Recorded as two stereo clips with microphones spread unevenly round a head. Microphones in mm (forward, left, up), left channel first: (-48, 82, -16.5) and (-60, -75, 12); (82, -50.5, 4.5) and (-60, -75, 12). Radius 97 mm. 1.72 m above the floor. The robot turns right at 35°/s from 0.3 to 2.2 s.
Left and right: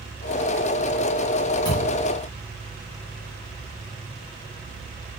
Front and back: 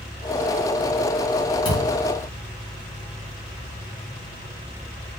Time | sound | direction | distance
1.6 | a thud | 30° left | 1.3 m